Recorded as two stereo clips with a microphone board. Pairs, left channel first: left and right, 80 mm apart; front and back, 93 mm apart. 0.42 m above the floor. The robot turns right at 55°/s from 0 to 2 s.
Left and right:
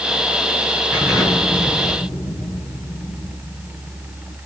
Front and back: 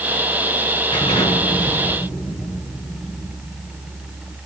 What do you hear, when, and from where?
0.9 s an explosion: 20° right, 4.5 m; by 4.4 s 40° left, 4.5 m